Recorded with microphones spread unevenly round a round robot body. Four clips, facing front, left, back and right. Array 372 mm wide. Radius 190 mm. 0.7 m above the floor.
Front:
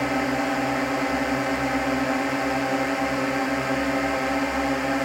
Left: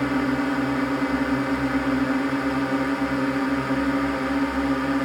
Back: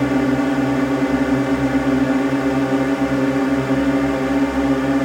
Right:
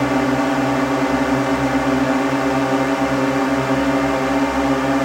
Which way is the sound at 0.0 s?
155° right.